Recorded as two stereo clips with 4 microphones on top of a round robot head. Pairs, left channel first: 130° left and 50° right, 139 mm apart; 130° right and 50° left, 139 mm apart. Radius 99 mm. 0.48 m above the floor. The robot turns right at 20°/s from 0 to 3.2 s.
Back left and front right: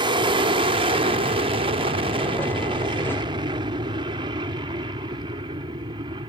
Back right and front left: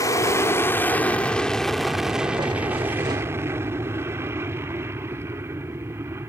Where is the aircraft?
80° right; by 6.3 s 15° right.